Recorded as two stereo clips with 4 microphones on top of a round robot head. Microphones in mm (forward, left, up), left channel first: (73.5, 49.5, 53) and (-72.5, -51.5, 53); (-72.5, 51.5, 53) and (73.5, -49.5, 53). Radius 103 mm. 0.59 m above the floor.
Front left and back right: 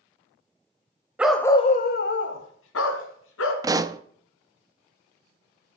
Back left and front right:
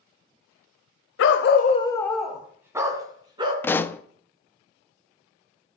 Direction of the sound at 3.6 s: 160° right.